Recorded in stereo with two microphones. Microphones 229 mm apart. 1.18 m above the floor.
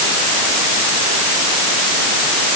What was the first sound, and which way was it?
Only background noise.